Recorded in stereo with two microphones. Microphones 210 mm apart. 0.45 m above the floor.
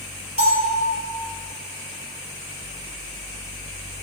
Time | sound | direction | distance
0.4 | a bell | 75° right (ahead or behind) | 4.5 m